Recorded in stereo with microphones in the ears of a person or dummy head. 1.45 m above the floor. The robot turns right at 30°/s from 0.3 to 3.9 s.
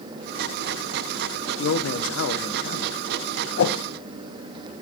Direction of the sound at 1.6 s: 95° left.